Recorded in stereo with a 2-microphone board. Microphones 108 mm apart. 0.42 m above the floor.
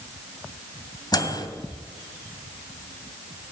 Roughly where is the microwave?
Left.